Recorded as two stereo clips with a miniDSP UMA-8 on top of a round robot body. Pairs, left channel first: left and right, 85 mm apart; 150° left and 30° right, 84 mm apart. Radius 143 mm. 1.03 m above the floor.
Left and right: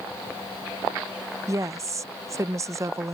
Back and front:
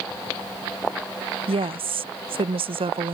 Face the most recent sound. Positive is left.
turn(degrees=-35)